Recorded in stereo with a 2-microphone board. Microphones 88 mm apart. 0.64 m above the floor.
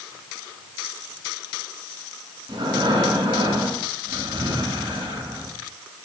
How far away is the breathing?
About 2 m.